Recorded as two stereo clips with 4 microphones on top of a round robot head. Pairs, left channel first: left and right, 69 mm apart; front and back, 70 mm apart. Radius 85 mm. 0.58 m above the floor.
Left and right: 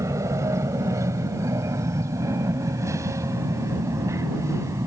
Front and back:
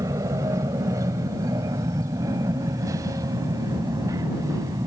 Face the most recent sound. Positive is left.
turn(degrees=-135)